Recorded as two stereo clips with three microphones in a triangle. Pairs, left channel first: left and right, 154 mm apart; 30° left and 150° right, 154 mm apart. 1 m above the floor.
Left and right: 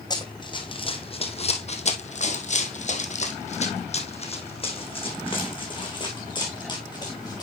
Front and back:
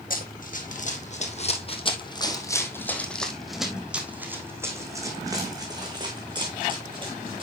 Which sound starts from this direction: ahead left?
Running footsteps, at 0.1 s.